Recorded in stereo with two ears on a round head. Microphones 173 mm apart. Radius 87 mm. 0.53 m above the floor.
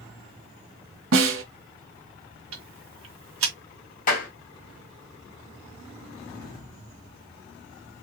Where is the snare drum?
80° right, 1.2 m.